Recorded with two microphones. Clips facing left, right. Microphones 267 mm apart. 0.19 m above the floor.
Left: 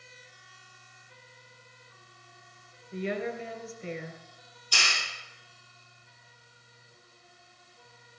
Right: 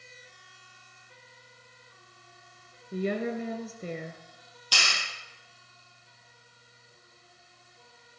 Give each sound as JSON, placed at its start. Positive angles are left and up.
{"t": 2.9, "sound": "a woman speaking", "side_deg": -45, "distance_m": 2.5}
{"t": 4.7, "sound": "a clap", "side_deg": -80, "distance_m": 5.0}